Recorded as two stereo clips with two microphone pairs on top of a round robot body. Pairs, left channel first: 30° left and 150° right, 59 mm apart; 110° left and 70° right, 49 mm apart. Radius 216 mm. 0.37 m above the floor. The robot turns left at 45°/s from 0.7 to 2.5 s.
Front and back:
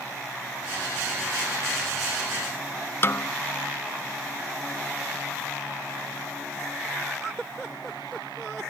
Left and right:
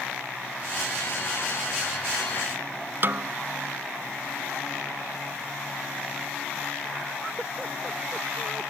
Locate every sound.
3.0 s a snare drum: 20° right